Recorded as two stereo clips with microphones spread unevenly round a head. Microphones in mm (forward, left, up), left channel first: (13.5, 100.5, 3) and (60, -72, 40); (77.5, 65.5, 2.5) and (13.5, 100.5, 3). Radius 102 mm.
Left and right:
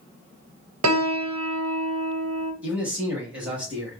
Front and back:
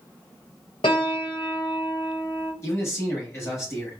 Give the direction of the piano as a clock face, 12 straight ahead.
3 o'clock.